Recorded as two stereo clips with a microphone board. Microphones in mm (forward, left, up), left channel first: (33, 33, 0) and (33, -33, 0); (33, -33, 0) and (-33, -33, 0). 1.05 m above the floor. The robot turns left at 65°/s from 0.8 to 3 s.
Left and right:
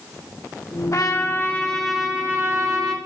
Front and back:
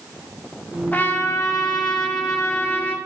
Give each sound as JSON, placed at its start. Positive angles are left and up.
{"t": 0.9, "sound": "a trumpet", "azimuth_deg": 60, "distance_m": 1.1}